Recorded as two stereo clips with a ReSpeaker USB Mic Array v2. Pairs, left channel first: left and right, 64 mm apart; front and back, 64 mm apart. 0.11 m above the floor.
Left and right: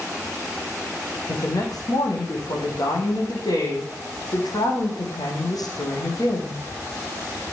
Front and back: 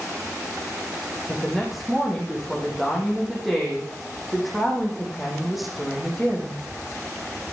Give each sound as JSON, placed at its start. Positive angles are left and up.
{"t": 1.3, "sound": "a woman speaking", "azimuth_deg": 90, "distance_m": 5.0}